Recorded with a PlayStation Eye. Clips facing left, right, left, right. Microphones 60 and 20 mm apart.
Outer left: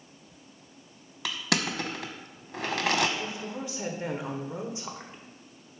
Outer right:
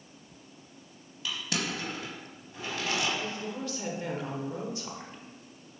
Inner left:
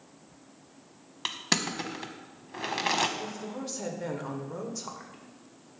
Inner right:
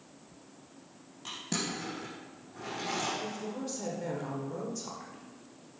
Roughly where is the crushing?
Left.